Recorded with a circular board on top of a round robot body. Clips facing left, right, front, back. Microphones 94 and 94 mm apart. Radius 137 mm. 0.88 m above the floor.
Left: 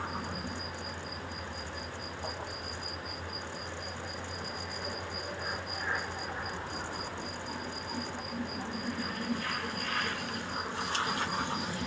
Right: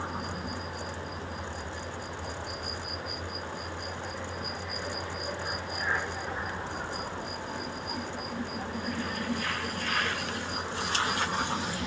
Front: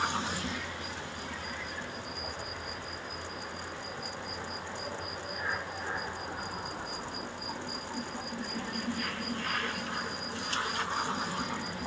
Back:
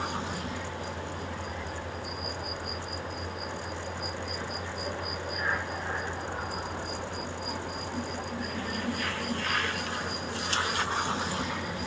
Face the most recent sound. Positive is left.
No sound to turn to.